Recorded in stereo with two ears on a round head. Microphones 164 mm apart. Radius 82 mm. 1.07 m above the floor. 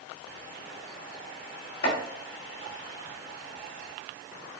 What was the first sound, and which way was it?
Chopping, 60° left (ahead or behind).